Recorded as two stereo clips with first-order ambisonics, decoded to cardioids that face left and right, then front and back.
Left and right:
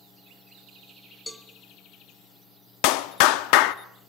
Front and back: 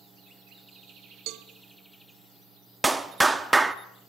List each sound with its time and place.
1.3 s a cowbell: 170° left, 1.3 m
2.8 s a clap: 100° left, 0.9 m